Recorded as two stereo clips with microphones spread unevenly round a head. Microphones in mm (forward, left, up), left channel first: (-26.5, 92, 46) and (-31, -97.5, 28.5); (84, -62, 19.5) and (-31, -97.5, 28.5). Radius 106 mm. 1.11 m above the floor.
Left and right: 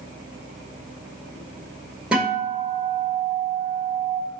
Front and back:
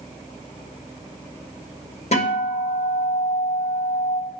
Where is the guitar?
5° right, 5 m.